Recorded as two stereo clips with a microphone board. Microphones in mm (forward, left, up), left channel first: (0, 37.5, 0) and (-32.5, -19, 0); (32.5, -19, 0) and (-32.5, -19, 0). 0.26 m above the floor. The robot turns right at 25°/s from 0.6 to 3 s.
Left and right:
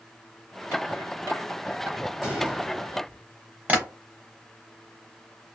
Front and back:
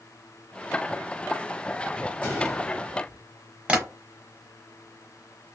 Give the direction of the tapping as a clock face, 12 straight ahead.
4 o'clock.